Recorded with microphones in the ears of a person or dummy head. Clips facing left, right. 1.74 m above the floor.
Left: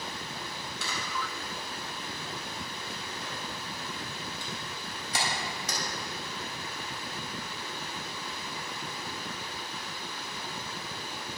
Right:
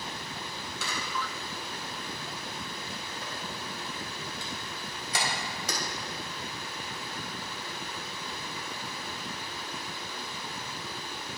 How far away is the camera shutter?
About 4 m.